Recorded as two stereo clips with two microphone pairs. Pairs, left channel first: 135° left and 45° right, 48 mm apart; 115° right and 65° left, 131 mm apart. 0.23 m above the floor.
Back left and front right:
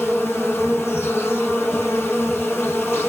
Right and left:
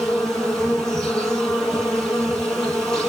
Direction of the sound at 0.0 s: 160° left.